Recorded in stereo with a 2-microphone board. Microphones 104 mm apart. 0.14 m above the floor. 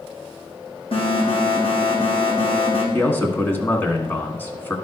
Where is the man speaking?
20° left (ahead or behind), 1.2 m.